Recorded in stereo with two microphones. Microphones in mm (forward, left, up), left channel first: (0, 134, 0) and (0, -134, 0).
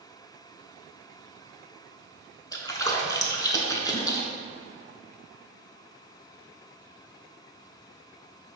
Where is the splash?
15° left (ahead or behind), 0.5 m.